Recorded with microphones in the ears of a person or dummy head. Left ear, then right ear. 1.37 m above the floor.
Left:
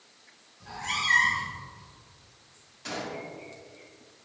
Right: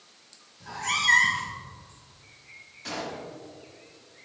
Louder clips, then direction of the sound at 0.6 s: Right 4 dB; 30° right (ahead or behind).